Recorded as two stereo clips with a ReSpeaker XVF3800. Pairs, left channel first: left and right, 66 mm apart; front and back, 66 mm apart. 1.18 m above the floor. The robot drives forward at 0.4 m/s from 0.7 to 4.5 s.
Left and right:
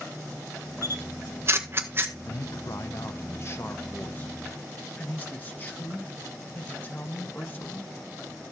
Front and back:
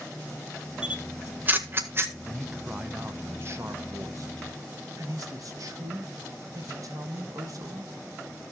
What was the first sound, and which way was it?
A camera shutter, 110° right.